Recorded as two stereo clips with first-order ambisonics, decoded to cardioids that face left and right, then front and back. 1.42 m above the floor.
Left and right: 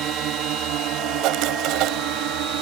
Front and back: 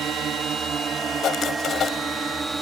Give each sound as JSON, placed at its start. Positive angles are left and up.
{"t": 0.0, "sound": "a drone", "azimuth_deg": -125}
{"t": 1.2, "sound": "writing", "azimuth_deg": -60}